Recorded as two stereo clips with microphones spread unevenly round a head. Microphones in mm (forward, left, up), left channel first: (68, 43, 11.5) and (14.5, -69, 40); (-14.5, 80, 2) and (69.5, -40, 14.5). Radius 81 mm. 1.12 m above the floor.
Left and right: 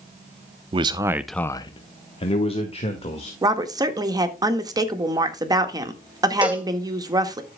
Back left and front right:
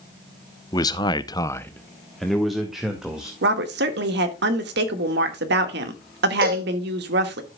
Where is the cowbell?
35° right, 2 m.